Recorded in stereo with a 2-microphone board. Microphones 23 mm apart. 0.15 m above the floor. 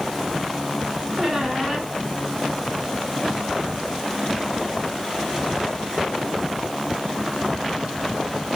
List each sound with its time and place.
1.2 s a squeak: 40° right (ahead or behind), 3.5 m